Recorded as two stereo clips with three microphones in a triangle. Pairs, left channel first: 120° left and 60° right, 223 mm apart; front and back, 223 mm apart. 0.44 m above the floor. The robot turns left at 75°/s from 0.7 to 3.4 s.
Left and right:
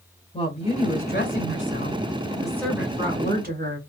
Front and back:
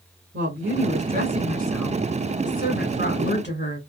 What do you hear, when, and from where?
0.3 s a woman speaking: straight behind, 2 m; by 3.8 s 25° right, 2 m